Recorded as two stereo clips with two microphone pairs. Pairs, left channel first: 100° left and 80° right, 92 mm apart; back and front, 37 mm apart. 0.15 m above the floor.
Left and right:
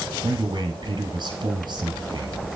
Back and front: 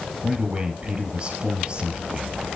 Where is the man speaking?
55° right, 2.5 m.